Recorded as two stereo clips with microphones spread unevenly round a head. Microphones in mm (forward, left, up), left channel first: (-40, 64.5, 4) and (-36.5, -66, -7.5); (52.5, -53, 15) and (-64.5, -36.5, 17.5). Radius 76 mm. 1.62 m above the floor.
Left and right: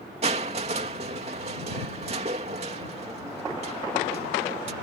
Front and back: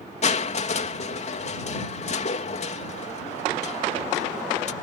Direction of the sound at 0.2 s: 35° right.